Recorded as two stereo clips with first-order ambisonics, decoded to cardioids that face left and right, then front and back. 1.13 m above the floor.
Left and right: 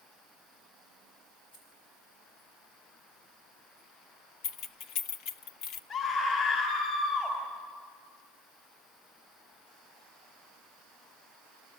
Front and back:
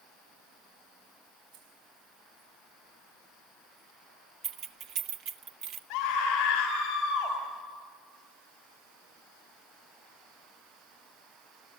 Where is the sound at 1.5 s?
150° left, 5 m.